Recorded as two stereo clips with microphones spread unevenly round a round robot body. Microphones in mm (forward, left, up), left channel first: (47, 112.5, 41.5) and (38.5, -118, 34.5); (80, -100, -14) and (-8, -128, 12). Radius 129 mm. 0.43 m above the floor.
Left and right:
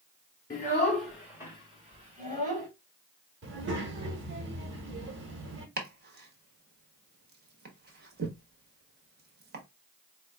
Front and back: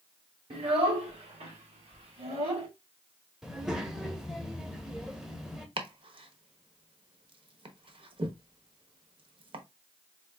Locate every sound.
0.5 s a child speaking: 155° left, 1.2 m; by 2.7 s 145° right, 1.9 m
3.4 s a child speaking: 70° right, 1.3 m
5.8 s chopping: 130° right, 1.0 m